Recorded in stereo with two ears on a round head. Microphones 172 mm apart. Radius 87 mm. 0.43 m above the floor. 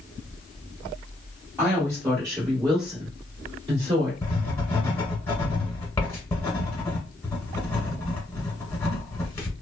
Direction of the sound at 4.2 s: 10° left (ahead or behind).